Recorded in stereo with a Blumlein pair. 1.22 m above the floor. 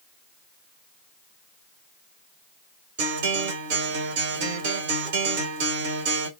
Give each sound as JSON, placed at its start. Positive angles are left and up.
{"t": 3.0, "sound": "a guitar", "azimuth_deg": -55, "distance_m": 1.4}